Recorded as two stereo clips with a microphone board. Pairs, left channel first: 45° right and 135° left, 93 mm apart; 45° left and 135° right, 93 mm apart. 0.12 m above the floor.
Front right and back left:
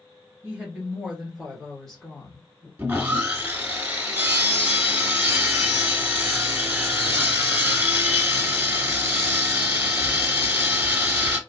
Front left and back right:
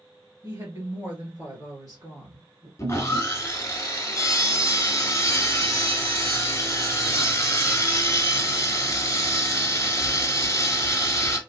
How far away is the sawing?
About 1.0 m.